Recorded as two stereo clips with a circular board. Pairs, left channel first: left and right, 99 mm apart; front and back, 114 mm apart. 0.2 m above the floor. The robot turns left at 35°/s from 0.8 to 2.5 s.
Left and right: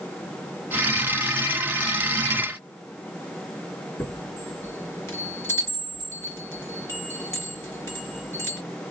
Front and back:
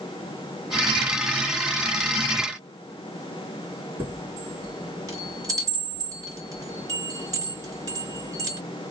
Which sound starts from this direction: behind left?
A chime, at 4.0 s.